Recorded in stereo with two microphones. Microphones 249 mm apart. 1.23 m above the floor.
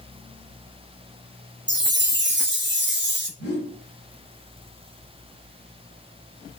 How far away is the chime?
About 0.5 m.